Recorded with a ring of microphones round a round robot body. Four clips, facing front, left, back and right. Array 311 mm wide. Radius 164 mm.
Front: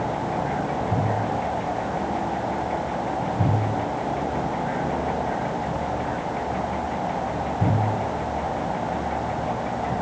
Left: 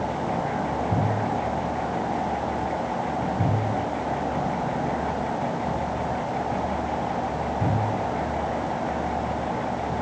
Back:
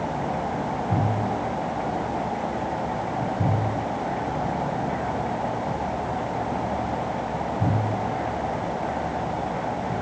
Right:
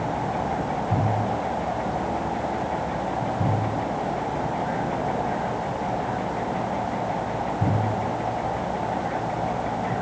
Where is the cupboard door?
No cupboard door in this recording.